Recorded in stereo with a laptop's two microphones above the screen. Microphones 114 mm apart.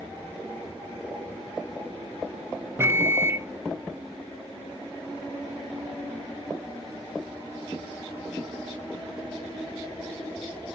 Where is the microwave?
20° right (ahead or behind), 0.5 m.